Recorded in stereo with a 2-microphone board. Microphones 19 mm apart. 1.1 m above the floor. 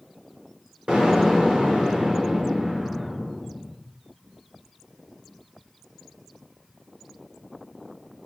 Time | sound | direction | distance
0.9 | an explosion | 75° right (ahead or behind) | 4.5 m